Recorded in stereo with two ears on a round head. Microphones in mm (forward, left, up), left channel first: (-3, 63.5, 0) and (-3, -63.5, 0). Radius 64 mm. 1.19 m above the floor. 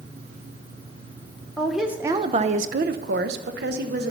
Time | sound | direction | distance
1.6 | a woman speaking | 5° left (ahead or behind) | 0.6 m